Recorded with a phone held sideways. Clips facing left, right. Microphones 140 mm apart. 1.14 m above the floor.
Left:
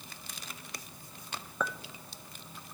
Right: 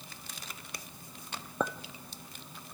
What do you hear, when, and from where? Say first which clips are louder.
1.6 s a clink: right 3 dB; 30° right (ahead or behind), 0.8 m